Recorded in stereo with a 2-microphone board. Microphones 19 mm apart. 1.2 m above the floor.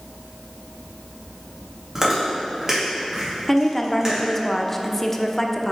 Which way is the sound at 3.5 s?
15° left (ahead or behind).